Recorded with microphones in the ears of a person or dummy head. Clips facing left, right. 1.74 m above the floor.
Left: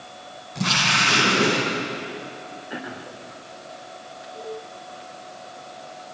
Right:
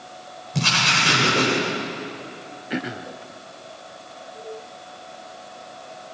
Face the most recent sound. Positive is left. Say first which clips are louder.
# right 7 dB
turn(degrees=-30)  # may be behind; listen again after turning